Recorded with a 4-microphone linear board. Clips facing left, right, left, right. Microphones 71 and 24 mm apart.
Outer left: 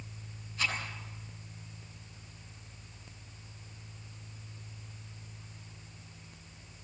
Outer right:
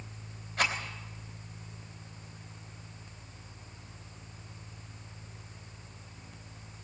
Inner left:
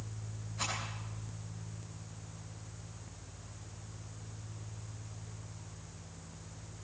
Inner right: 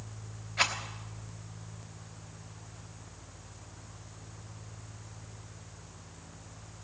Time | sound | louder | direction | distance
0.6 | a rattle | outer right 4 dB, inner right 9 dB | 70° right (ahead or behind) | 3.5 m